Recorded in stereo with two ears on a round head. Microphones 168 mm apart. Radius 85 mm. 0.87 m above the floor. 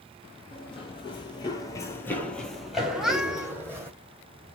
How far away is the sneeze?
I don't hear a sneeze.